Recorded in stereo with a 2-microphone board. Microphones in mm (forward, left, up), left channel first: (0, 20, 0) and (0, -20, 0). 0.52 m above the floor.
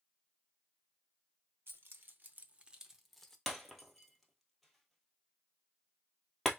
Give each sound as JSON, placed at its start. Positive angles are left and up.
{"t": 1.7, "sound": "keys jangling", "side_deg": -65, "distance_m": 0.9}
{"t": 3.5, "sound": "breaking glass", "side_deg": 0, "distance_m": 1.1}